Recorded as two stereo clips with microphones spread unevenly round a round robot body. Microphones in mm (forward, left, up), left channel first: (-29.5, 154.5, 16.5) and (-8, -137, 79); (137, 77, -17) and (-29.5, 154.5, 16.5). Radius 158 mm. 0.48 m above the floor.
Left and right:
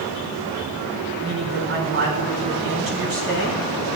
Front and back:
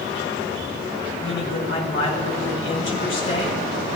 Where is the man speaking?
35° right, 4 m.